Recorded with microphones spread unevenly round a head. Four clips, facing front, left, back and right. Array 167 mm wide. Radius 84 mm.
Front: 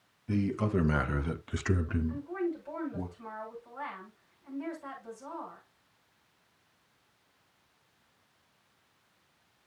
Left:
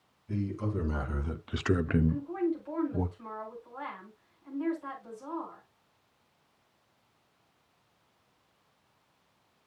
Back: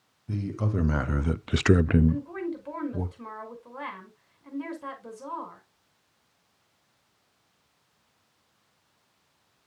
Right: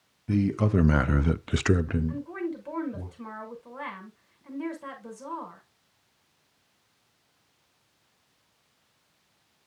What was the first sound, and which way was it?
A man speaking, 85° right.